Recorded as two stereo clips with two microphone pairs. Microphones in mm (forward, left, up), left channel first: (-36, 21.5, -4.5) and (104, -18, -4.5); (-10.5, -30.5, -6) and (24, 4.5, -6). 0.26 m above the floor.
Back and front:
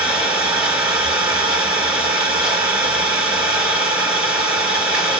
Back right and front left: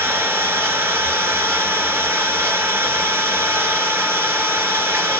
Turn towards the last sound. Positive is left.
turn(degrees=70)